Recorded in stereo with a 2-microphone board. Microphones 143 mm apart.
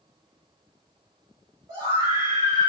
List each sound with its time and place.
1.7 s a scream: 25° right (ahead or behind), 1.9 m